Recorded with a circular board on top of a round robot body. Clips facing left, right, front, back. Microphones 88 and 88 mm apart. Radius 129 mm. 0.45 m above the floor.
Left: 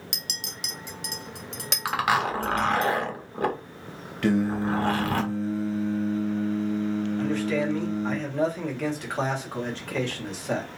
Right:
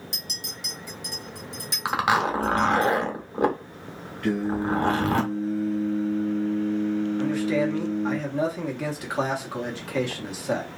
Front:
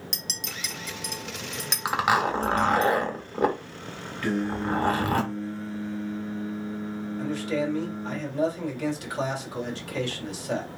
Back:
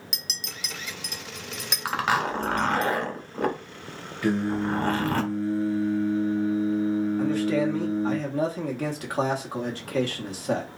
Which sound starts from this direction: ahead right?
A zipper, at 1.9 s.